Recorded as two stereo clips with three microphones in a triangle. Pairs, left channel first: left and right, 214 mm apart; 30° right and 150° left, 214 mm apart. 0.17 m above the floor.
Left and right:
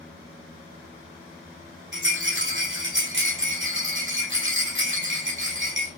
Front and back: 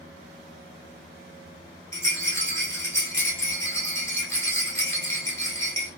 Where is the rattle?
110° right, 1.2 m.